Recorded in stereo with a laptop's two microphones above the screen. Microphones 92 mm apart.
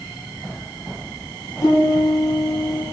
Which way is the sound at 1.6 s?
40° left (ahead or behind).